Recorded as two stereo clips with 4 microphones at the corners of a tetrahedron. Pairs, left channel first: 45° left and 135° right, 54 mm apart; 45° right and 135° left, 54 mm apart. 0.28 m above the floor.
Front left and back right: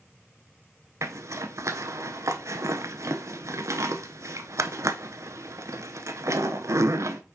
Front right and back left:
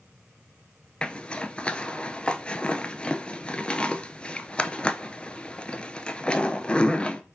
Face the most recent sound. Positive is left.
turn(degrees=-115)